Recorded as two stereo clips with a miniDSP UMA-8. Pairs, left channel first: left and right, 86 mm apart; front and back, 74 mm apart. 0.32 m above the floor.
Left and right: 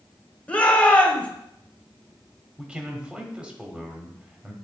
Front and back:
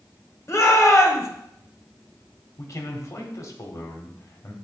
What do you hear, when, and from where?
0.5 s a shout: 25° left, 1.2 m
2.6 s a man speaking: 15° right, 1.2 m